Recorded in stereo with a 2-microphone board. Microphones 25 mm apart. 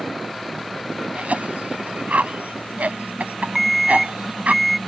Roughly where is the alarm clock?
Centre.